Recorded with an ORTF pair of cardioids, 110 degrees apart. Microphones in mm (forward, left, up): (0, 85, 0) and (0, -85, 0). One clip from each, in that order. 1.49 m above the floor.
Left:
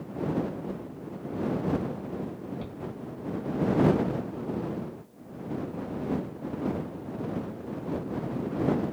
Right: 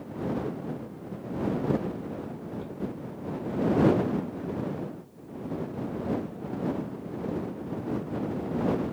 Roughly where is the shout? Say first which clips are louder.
Right 1 dB; ahead left.